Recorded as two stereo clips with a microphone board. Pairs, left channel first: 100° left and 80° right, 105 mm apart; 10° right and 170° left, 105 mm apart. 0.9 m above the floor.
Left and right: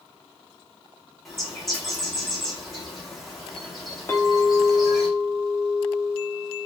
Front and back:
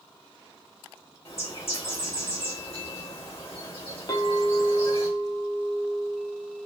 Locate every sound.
1.2 s a bird: 10° left, 1.4 m
4.1 s a clink: 35° left, 0.6 m